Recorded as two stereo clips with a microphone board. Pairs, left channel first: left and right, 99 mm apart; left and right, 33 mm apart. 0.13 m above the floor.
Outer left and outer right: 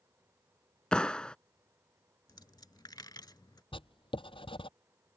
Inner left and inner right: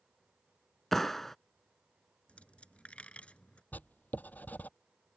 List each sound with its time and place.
0.9 s a clap: 10° left (ahead or behind)
2.3 s a dropped coin: 45° left (ahead or behind)
3.7 s writing: 60° left (ahead or behind)